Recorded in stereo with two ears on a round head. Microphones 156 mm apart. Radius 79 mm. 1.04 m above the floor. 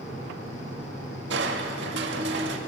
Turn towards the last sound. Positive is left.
turn(degrees=-75)  # may be behind; listen again after turning